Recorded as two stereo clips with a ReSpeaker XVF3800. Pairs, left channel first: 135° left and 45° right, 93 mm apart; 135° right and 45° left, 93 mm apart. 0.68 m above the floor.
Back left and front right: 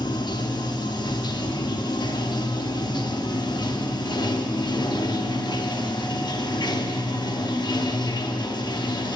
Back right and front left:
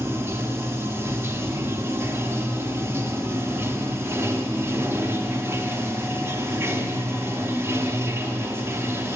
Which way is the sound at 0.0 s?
105° left.